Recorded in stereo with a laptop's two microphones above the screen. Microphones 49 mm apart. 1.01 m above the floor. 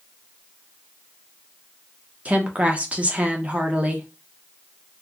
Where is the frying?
No frying in this recording.